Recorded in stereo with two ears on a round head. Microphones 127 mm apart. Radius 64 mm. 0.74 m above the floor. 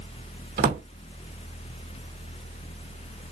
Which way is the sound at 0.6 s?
65° right (ahead or behind).